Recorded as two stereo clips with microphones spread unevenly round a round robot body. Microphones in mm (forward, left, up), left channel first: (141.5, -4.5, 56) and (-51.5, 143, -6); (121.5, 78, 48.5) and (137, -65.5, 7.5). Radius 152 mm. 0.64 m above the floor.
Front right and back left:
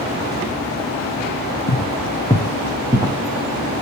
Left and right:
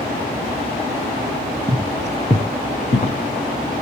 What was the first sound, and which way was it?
Footsteps, 10° right.